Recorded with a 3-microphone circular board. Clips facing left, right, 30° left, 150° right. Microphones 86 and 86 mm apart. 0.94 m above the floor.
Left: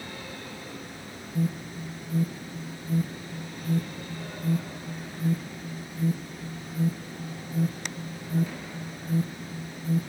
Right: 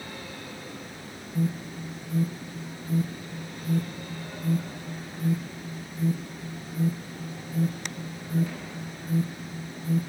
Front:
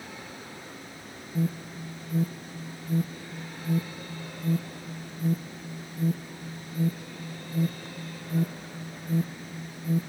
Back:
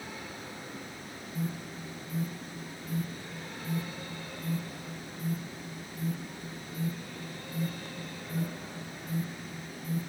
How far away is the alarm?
About 1.0 m.